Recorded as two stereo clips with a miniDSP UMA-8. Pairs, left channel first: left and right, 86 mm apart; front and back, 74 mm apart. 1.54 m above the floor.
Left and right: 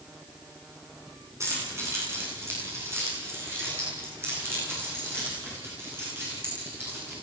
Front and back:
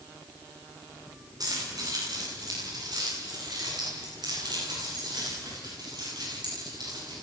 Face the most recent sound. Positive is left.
turn(degrees=-155)